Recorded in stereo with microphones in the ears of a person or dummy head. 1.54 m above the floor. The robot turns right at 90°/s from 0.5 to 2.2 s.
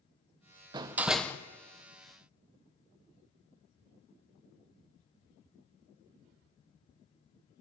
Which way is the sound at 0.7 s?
40° right.